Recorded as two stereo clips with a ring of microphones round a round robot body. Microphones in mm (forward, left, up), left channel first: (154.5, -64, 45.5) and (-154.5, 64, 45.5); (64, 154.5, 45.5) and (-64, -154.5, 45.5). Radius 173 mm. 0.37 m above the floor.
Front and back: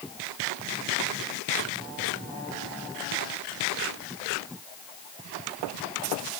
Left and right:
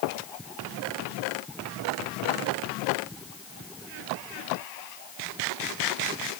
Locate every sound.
Only background noise.